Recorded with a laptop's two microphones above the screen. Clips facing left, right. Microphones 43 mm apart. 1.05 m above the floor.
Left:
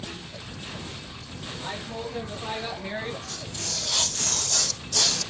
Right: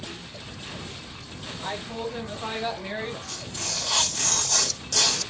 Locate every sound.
1.6 s a woman speaking: 35° right (ahead or behind), 1.6 m; by 3.2 s 5° left (ahead or behind), 0.7 m
3.3 s tearing paper: 60° right (ahead or behind), 1.2 m